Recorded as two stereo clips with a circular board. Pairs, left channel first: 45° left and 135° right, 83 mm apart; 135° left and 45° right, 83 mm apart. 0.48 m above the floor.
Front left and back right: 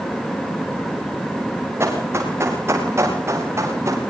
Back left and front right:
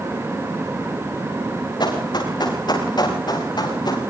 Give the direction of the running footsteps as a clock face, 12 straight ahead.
6 o'clock.